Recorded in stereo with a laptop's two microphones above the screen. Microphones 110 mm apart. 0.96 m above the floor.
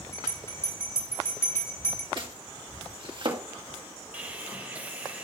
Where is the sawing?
15° right (ahead or behind), 2.5 m.